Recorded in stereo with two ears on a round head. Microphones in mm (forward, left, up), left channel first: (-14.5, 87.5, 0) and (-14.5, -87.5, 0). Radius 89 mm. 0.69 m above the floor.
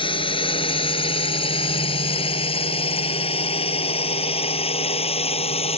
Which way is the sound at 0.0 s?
25° left (ahead or behind).